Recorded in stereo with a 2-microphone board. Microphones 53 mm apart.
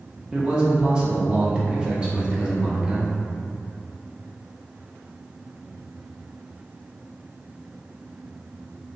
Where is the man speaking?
15° right (ahead or behind), 0.6 m.